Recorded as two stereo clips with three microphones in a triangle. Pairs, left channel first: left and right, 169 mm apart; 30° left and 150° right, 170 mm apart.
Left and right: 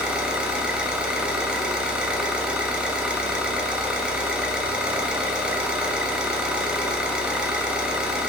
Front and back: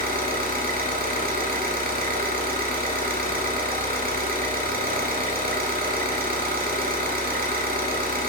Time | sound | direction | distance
0.0 | an engine running | 175° right | 0.7 m